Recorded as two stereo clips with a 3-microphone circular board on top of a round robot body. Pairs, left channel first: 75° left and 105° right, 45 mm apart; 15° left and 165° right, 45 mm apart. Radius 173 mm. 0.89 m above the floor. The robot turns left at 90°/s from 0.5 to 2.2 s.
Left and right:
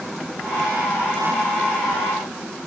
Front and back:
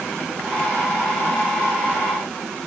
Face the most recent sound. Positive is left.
No sound to turn to.